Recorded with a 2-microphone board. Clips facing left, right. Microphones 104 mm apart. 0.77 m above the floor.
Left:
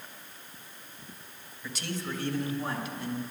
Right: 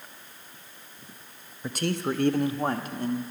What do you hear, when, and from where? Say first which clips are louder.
1.6 s a man speaking: right 8 dB; 50° right (ahead or behind), 0.7 m; by 3.3 s 45° right (ahead or behind), 1.1 m